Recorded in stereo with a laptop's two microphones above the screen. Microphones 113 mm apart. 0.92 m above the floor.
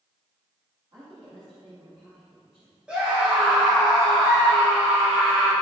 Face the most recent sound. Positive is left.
turn(degrees=-10)  # may be behind; listen again after turning